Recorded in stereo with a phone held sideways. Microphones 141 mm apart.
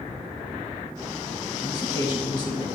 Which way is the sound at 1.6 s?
30° left (ahead or behind).